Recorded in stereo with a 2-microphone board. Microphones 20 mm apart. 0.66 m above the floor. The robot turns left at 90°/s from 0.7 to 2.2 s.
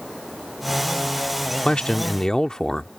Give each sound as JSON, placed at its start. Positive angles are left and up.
{"t": 1.6, "sound": "a man speaking", "azimuth_deg": 95}